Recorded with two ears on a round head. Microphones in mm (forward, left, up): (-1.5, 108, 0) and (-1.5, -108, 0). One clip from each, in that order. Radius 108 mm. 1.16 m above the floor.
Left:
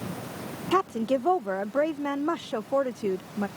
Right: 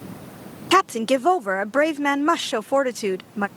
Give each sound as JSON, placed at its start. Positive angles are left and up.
{"t": 0.7, "sound": "a woman speaking", "side_deg": -60}